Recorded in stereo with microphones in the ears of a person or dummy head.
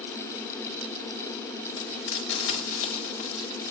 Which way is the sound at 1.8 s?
65° left (ahead or behind).